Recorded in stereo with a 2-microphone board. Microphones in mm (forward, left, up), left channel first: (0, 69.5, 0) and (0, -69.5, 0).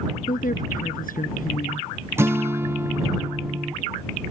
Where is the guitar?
20° right (ahead or behind).